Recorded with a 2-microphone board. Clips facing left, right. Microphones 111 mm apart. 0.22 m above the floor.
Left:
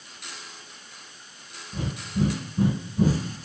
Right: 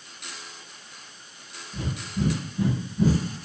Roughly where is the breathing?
Left.